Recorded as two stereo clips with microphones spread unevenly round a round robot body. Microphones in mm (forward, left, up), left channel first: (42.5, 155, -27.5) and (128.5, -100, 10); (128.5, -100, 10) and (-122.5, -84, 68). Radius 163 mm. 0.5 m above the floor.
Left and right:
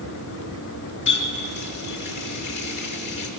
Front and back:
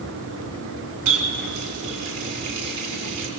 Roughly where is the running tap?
Behind.